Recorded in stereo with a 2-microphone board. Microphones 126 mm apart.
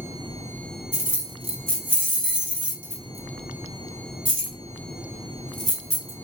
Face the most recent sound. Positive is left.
turn(degrees=45)  # may be behind; listen again after turning